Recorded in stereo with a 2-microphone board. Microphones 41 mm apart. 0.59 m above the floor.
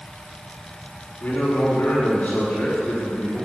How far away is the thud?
I don't hear a thud.